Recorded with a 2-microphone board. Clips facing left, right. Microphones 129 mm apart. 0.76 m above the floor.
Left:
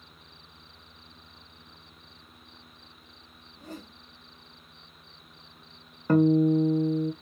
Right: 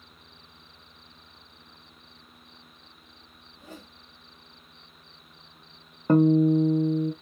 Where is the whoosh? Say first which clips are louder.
Left 4 dB; 40° left (ahead or behind), 1.5 m.